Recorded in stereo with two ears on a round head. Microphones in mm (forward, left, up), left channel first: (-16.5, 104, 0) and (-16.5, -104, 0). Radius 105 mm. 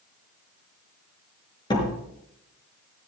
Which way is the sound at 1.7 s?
20° left (ahead or behind).